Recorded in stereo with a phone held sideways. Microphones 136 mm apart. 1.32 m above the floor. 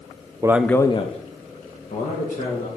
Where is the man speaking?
25° right (ahead or behind), 0.5 m; by 2.7 s 75° left (ahead or behind), 2 m.